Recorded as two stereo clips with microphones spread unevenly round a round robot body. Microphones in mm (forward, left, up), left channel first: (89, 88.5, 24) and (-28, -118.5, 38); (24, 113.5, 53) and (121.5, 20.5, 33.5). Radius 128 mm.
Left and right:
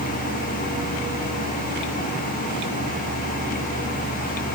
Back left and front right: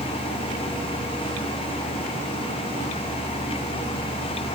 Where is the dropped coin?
No dropped coin in this recording.